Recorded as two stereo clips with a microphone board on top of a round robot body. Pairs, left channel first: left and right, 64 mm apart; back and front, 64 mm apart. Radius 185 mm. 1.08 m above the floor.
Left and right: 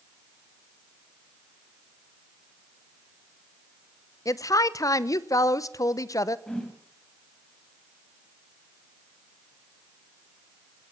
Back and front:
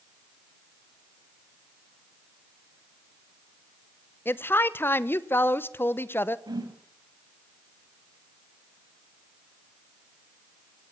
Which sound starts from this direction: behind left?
A woman speaking, at 4.2 s.